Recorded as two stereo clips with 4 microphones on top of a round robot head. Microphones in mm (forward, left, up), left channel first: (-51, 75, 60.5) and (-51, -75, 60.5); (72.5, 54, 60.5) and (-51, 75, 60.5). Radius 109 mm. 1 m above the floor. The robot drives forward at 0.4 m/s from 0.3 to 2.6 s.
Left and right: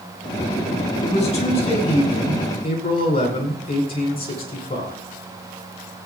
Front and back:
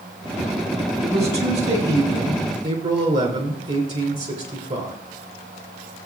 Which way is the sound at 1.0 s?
135° left.